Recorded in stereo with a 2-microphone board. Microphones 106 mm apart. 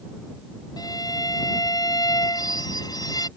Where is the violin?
35° left (ahead or behind).